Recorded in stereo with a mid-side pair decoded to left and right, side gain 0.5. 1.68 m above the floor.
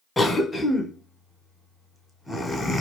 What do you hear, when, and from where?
0.2 s a cough: 20° left, 1.3 m